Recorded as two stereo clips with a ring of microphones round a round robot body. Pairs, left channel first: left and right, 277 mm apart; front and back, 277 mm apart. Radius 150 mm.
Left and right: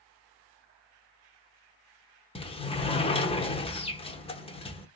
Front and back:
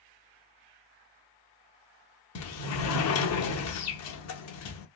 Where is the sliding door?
25° left, 0.7 m.